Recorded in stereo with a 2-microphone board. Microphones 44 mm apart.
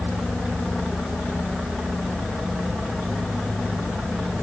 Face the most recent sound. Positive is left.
No sound to turn to.